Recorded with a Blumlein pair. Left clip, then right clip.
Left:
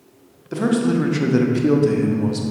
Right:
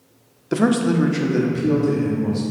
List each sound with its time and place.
0.5 s a man speaking: 20° right, 0.8 m; by 2.4 s 40° left, 1.3 m